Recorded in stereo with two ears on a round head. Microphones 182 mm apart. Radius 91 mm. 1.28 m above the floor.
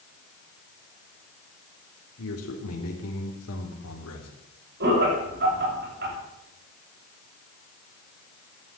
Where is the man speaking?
75° left (ahead or behind), 3 m.